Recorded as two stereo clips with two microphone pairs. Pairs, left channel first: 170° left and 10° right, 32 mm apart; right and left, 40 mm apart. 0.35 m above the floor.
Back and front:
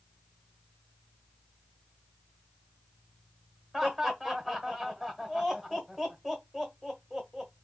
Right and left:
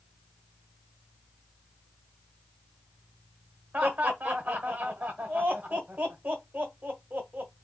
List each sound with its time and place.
3.7 s laughter: 75° left, 1.2 m